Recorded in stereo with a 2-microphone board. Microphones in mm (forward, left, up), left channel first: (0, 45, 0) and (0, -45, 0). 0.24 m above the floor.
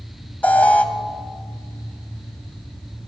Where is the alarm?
20° left (ahead or behind), 0.8 m.